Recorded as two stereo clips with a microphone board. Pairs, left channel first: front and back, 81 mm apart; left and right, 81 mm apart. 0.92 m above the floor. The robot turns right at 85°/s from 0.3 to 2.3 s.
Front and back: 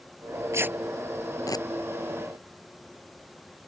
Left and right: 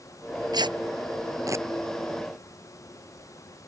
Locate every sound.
0.5 s tearing paper: 125° right; by 1.7 s 30° right